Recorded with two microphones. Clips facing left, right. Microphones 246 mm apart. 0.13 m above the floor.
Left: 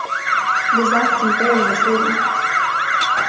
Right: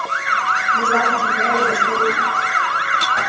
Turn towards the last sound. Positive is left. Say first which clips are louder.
# left 3 dB
turn(degrees=65)  # may be behind; listen again after turning